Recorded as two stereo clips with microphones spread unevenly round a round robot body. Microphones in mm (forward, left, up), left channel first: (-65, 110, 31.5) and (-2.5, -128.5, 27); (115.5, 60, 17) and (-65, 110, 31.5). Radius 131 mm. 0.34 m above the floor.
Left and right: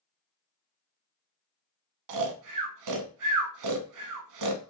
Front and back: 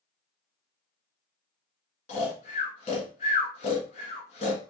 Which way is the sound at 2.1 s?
80° right.